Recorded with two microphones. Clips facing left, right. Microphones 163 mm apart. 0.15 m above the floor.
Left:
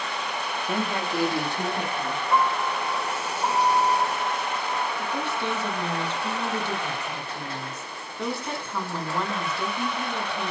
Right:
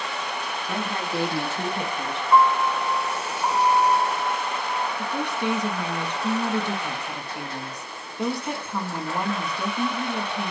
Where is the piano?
35° left (ahead or behind), 1.5 m.